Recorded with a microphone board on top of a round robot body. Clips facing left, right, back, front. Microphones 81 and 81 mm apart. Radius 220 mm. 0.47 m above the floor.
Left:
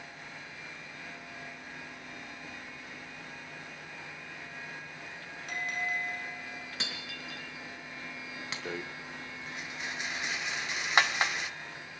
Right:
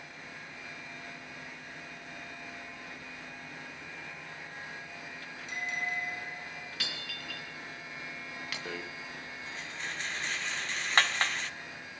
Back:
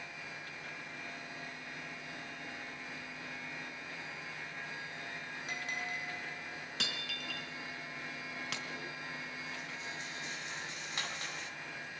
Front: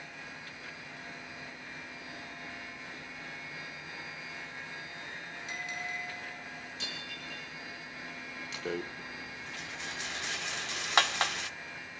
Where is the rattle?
10° left, 1.2 m.